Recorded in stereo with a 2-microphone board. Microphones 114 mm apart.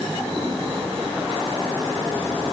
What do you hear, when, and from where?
Only background noise.